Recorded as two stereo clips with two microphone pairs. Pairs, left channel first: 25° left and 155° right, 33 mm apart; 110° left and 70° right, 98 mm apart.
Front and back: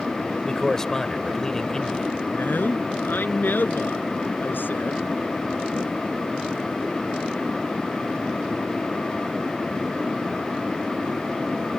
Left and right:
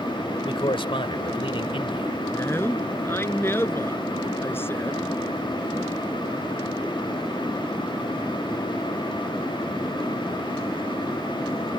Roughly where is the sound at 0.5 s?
Left.